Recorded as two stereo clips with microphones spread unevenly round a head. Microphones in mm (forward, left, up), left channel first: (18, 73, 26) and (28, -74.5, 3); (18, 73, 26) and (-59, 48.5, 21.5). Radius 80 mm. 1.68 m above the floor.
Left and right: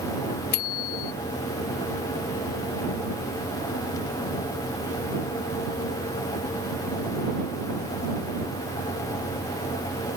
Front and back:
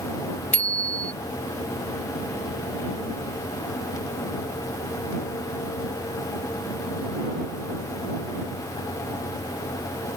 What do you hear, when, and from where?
0.5 s a bicycle bell: 90° left